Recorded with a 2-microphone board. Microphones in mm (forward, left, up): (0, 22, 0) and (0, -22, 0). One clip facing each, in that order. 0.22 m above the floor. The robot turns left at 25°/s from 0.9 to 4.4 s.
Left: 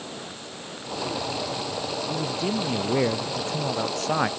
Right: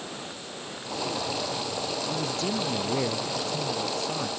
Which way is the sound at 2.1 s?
175° left.